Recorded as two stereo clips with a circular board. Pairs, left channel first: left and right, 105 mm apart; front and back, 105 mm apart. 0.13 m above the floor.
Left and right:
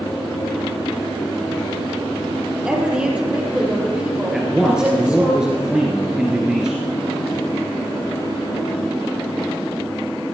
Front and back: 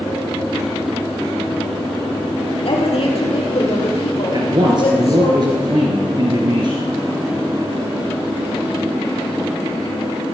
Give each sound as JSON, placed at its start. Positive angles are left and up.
{"t": 2.6, "sound": "a woman speaking", "azimuth_deg": -10, "distance_m": 4.5}
{"t": 4.3, "sound": "a man speaking", "azimuth_deg": -170, "distance_m": 2.5}